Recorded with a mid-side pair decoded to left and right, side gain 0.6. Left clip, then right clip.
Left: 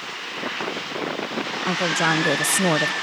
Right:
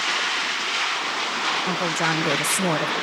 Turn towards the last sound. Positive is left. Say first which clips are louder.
# left 2 dB
turn(degrees=15)